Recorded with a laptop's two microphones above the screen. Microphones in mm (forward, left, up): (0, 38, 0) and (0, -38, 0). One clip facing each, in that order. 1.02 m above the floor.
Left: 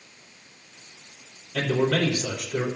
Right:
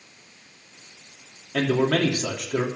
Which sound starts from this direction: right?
A man speaking, at 1.5 s.